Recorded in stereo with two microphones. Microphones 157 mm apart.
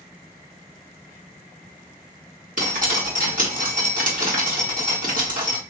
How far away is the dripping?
About 1.8 m.